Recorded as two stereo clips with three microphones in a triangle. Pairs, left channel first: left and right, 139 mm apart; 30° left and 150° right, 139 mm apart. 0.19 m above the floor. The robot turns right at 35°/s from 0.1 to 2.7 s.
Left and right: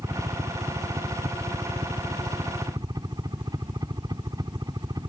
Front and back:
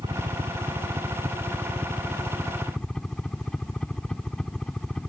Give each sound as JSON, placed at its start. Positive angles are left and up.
{"t": 0.0, "sound": "a helicopter", "azimuth_deg": -145}